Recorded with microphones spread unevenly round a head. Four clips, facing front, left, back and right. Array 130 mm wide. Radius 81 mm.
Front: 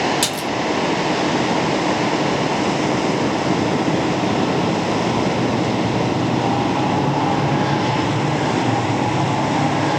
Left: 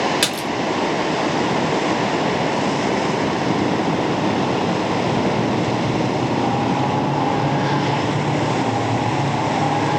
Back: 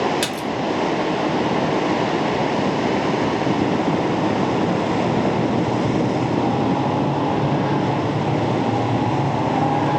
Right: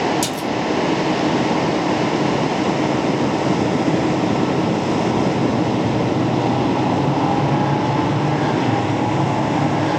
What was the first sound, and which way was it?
A splash, 85° left.